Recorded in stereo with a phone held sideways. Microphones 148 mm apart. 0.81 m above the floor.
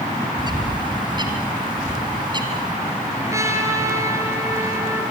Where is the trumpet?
20° right (ahead or behind), 4.5 m.